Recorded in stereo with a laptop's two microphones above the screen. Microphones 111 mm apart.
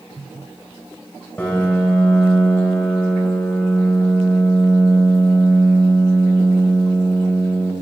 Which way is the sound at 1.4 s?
15° left (ahead or behind).